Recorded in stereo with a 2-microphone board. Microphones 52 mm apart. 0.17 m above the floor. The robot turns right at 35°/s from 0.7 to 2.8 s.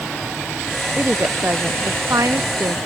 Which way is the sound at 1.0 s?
150° right.